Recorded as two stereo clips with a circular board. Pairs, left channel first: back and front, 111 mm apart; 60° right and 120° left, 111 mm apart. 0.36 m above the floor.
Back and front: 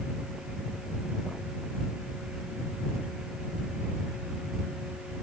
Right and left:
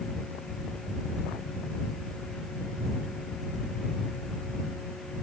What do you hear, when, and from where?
Only background noise.